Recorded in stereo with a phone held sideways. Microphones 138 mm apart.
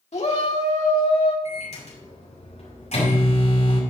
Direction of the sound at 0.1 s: 50° left (ahead or behind).